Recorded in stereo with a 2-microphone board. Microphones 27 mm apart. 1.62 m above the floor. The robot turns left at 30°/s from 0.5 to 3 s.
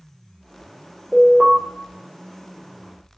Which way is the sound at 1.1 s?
55° right (ahead or behind).